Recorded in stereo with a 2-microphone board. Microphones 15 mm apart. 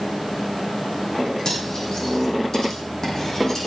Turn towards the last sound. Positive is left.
turn(degrees=40)  # may be behind; listen again after turning